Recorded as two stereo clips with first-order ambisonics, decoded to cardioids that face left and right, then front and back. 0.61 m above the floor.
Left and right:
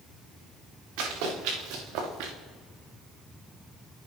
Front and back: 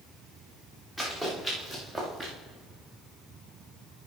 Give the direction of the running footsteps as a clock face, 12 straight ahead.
3 o'clock.